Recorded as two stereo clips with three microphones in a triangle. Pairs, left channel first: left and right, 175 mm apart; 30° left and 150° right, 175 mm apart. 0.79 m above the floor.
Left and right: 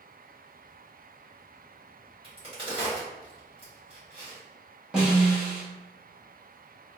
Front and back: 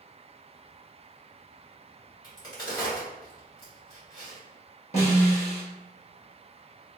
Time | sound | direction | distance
2.2 | a crack | 35° right | 1.8 m
4.9 | a snare drum | 5° right | 1.3 m